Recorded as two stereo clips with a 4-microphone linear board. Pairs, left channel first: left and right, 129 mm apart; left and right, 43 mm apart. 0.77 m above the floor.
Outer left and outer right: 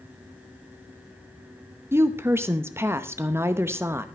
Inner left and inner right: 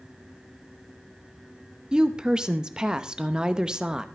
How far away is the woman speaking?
About 0.8 m.